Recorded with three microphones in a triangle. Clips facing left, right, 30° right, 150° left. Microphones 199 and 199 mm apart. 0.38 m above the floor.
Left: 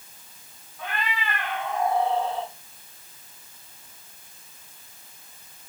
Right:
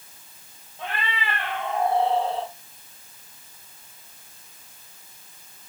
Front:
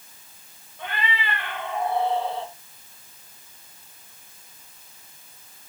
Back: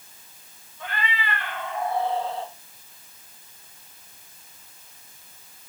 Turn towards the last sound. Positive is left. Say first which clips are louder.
# even, front 1 dB
turn(degrees=-30)